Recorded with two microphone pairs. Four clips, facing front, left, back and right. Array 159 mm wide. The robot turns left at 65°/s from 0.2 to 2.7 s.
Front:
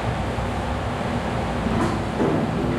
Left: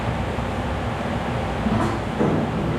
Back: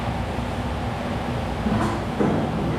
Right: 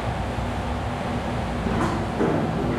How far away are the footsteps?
About 1.8 m.